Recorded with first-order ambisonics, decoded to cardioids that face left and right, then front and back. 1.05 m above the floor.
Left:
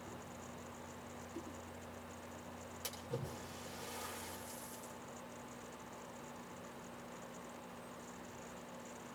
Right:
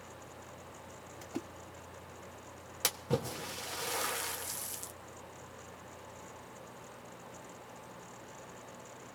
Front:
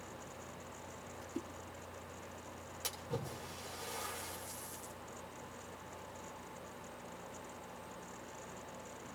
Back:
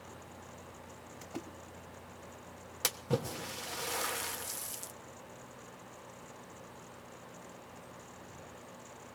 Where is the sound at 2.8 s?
130° right, 1.0 m.